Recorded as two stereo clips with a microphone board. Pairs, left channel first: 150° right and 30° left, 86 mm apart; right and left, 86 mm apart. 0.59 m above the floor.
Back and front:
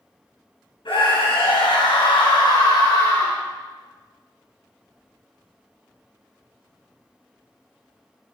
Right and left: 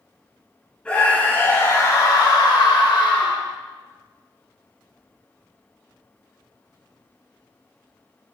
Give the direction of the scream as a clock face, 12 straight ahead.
6 o'clock.